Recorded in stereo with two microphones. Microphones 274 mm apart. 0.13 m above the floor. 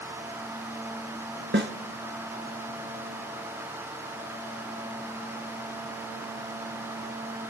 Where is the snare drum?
45° right (ahead or behind), 1.5 m.